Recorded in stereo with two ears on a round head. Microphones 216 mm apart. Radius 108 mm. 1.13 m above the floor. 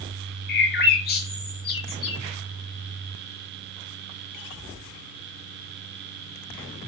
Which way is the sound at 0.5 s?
45° left (ahead or behind).